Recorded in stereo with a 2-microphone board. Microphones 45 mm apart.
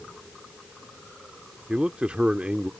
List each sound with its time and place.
1.7 s a man speaking: 25° right (ahead or behind)